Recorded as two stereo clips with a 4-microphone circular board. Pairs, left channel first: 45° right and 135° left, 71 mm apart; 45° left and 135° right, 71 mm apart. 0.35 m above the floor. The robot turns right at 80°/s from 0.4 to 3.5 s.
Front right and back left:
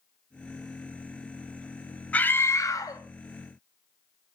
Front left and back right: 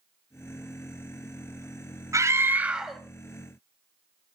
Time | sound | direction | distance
2.1 | a scream | 110° right | 2.5 m